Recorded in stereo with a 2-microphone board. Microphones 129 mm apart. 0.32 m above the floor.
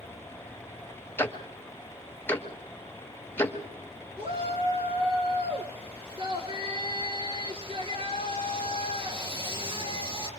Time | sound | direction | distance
1.2 | ticking | 15° left (ahead or behind) | 1.4 m
4.2 | a shout | 45° right (ahead or behind) | 4.5 m